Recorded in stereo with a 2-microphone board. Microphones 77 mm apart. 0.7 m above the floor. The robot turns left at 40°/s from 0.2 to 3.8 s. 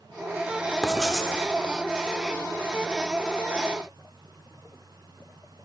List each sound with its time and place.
0.8 s writing: 5° left (ahead or behind), 0.7 m; by 1.3 s 10° right (ahead or behind), 0.7 m